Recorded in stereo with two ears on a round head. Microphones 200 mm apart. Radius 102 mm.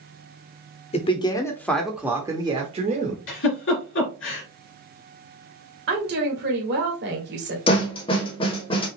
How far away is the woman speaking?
About 1.6 m.